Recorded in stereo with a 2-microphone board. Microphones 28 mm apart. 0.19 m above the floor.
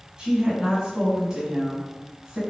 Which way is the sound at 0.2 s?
25° right (ahead or behind).